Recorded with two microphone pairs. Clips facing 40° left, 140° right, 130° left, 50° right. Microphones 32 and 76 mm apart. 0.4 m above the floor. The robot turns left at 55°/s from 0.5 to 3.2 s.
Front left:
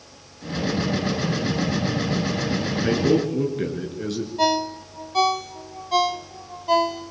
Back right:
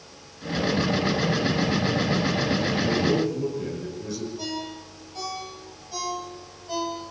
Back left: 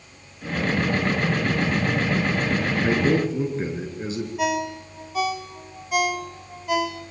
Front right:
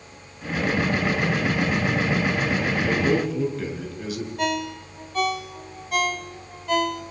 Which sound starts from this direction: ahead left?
A ringtone, at 4.4 s.